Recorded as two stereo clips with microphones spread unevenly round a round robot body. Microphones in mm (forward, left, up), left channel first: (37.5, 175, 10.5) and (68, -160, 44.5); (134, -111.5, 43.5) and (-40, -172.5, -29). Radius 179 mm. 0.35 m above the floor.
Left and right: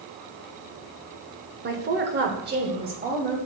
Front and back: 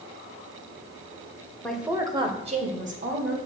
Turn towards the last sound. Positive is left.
turn(degrees=-150)